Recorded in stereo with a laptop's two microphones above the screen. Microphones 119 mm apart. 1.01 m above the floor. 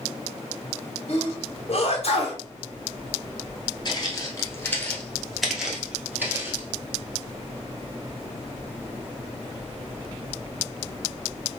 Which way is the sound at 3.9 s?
35° left (ahead or behind).